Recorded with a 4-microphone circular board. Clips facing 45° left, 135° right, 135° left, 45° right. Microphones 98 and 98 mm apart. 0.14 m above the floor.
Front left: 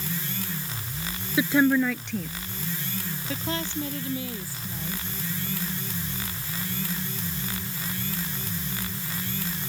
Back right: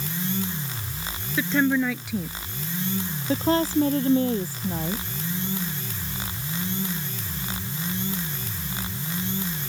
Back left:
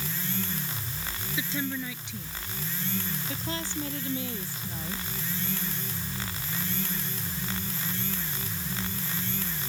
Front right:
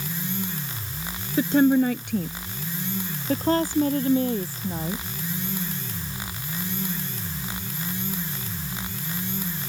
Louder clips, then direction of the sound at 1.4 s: Front left 1 dB, front right 16 dB; 25° right.